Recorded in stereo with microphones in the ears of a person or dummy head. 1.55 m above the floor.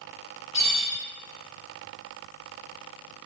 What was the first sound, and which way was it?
Cutlery clinking, 30° left (ahead or behind).